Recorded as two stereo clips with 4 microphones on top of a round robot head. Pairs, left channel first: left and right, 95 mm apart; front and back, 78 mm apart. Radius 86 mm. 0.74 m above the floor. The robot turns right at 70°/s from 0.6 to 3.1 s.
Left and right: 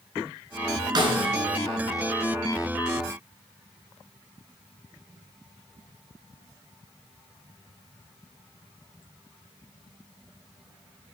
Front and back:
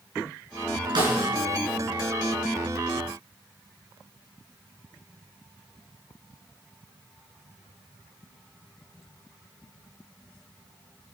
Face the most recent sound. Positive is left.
turn(degrees=15)